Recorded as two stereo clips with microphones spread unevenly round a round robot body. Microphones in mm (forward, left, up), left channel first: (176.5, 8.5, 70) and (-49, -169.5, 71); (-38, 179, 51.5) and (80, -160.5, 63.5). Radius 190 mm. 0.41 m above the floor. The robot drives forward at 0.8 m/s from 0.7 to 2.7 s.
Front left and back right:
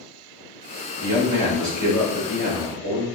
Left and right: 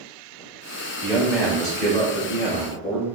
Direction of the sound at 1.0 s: 160° right.